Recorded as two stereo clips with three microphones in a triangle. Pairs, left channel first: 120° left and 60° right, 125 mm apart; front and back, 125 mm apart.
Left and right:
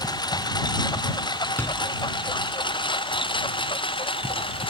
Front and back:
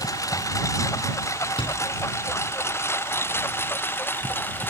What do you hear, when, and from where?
0.0 s a lawn mower: 65° left; by 4.7 s 75° left
1.6 s a door slam: 50° left